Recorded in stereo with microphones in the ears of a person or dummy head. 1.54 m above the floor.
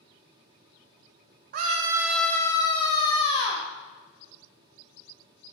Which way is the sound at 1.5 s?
55° right (ahead or behind).